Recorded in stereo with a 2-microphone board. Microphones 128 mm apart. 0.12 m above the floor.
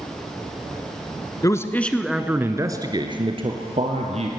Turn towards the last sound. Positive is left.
turn(degrees=-55)  # may be behind; listen again after turning